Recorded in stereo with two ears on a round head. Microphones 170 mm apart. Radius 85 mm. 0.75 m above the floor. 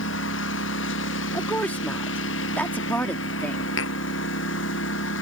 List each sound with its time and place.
0.0 s a lawn mower: 70° left (ahead or behind)
1.3 s a woman speaking: 10° left (ahead or behind)
3.8 s tapping: 75° left (ahead or behind)